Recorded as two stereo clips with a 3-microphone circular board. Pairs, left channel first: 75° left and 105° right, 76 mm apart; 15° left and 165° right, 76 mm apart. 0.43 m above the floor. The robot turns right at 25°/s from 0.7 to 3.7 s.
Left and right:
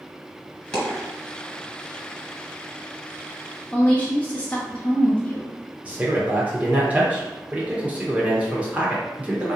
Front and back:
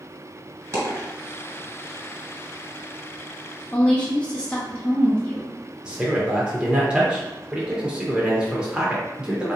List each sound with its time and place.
0.7 s a dropped coin: 150° left, 1.7 m; by 1.1 s 160° left, 1.7 m
3.7 s a woman speaking: 45° left, 0.8 m
5.8 s a man speaking: 120° right, 0.8 m